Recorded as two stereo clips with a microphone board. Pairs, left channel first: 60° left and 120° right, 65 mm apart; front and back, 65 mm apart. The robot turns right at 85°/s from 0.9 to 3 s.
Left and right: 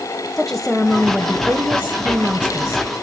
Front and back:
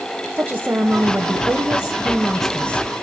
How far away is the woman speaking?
About 1.0 m.